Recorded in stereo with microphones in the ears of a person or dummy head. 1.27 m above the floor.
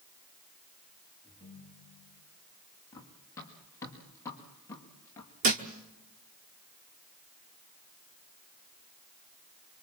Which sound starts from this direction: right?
A thud, at 5.4 s.